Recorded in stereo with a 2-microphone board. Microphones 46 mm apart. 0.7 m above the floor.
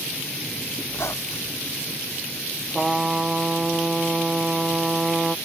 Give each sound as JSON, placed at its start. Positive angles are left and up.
{"t": 0.9, "sound": "a squeak", "side_deg": 65}
{"t": 2.7, "sound": "a trumpet", "side_deg": -10}